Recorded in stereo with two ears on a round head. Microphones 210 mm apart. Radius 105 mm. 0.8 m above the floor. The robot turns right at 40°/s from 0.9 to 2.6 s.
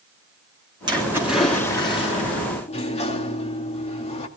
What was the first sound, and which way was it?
A splash, 20° right.